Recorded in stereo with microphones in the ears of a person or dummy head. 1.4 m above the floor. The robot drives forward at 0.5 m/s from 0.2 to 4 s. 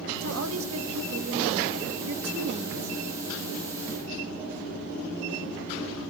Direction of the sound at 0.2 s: 75° right (ahead or behind).